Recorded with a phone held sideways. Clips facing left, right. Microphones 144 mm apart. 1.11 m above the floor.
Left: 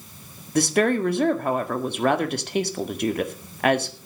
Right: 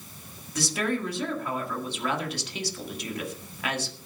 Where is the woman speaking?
60° left (ahead or behind), 1.9 m.